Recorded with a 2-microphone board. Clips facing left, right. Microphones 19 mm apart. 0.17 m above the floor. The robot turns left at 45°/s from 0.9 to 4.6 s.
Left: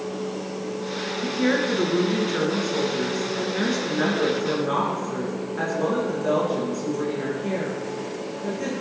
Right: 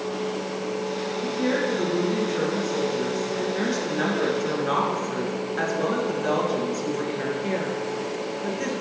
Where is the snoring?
No snoring in this recording.